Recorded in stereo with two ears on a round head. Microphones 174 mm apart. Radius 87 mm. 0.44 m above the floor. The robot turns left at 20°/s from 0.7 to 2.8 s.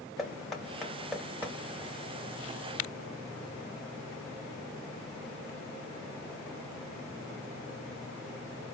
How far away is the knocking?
About 1.0 m.